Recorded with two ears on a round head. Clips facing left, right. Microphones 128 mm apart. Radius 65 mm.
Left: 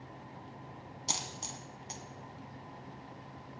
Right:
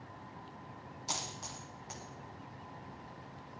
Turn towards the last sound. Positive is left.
turn(degrees=30)  # may be behind; listen again after turning